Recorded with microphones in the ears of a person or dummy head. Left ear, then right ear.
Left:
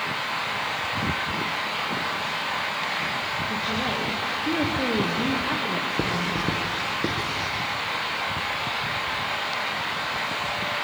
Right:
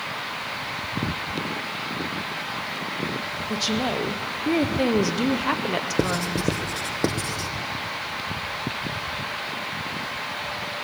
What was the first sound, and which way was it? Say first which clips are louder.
A woman speaking: right 1 dB; 80° right.